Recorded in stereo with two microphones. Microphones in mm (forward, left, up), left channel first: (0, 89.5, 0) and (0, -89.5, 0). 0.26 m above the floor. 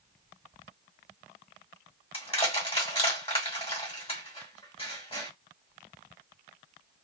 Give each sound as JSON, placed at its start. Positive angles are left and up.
{"t": 2.1, "sound": "crushing", "side_deg": 35, "distance_m": 1.7}